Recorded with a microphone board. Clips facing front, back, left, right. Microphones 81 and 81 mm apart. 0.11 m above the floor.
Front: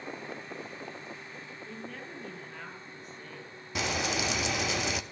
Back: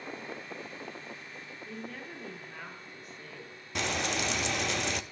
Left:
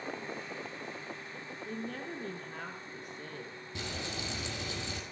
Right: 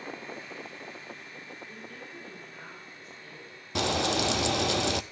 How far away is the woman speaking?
About 3.5 m.